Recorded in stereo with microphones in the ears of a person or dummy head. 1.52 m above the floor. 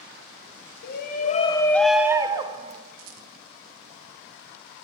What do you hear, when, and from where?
0.8 s a shout: 60° left (ahead or behind), 1.1 m; by 2.8 s 35° right (ahead or behind), 1.4 m
3.0 s a rattle: 80° right, 1.4 m